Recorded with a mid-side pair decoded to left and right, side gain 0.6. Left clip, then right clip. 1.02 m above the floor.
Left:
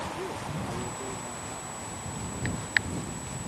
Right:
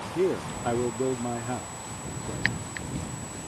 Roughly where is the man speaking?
Ahead right.